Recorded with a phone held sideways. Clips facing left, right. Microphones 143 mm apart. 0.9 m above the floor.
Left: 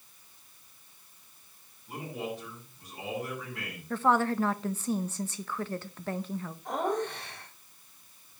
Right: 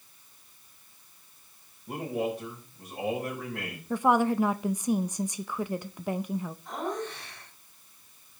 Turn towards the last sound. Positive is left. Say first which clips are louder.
# left 7 dB
turn(degrees=60)  # may be behind; listen again after turning